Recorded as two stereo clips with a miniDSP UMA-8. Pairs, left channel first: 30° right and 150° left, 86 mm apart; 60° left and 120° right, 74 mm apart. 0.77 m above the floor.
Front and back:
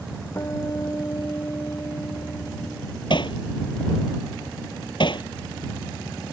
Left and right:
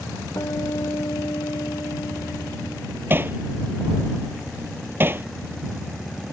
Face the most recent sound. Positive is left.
turn(degrees=-60)